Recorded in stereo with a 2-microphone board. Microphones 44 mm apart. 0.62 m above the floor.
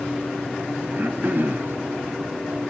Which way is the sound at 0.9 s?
45° right (ahead or behind).